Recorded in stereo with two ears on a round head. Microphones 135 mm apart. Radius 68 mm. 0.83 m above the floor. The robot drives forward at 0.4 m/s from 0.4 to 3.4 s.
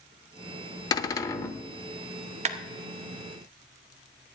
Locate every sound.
0.9 s a cupboard door: 25° left (ahead or behind), 0.6 m; by 1.6 s 20° left (ahead or behind), 0.8 m
2.5 s a clap: 45° right (ahead or behind), 0.9 m